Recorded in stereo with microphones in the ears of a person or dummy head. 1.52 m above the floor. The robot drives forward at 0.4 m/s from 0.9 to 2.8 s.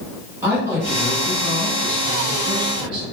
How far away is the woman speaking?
About 1.6 m.